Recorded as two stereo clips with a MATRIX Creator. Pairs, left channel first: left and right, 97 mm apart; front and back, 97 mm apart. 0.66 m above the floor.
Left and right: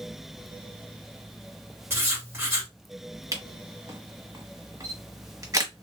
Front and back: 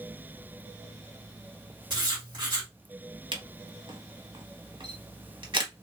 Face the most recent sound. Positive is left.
turn(degrees=-145)